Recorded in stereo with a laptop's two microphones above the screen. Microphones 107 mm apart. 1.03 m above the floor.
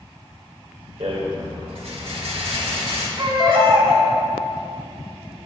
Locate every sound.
1.0 s a rattle: 75° right (ahead or behind), 1.7 m
3.2 s a baby crying: 50° right (ahead or behind), 1.3 m